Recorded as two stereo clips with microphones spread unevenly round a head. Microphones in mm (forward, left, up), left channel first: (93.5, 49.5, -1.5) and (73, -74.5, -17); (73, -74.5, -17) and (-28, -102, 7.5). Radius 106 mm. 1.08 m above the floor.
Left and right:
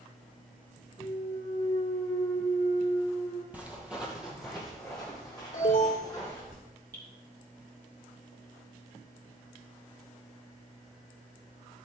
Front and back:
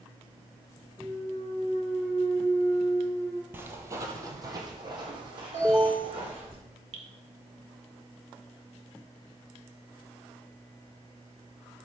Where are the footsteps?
Straight behind, 1.2 m; by 6.5 s 165° left, 3 m.